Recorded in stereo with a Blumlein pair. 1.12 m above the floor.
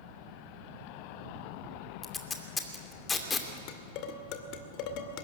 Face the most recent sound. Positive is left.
turn(degrees=40)